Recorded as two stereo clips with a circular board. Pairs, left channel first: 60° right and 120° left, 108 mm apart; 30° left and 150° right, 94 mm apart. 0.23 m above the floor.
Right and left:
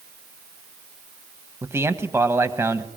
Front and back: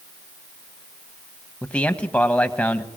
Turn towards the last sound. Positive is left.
turn(degrees=90)